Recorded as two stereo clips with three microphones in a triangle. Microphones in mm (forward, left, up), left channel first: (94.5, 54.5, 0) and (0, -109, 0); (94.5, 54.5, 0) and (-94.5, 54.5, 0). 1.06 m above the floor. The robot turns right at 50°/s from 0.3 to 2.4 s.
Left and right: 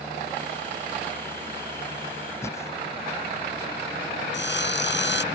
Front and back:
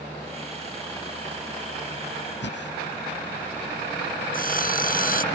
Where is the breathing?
15° right.